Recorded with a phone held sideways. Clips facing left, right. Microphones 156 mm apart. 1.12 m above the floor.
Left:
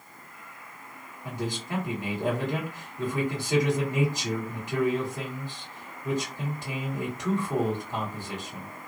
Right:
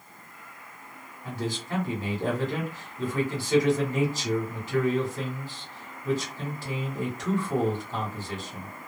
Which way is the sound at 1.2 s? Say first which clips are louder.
Right 1 dB; 15° left (ahead or behind).